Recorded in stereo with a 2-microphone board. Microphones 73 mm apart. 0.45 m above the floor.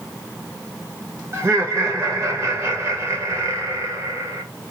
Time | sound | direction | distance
1.3 | laughter | 40° right (ahead or behind) | 1.3 m